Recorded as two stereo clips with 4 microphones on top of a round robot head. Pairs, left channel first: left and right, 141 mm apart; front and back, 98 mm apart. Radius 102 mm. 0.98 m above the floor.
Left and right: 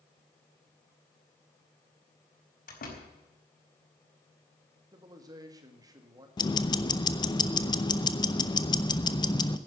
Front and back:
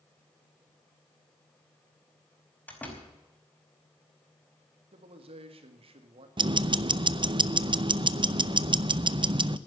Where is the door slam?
75° left, 5 m.